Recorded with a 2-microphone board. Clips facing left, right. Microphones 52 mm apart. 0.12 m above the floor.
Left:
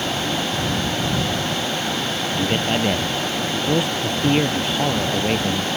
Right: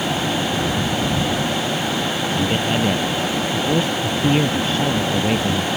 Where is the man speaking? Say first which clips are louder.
Even; 10° left (ahead or behind).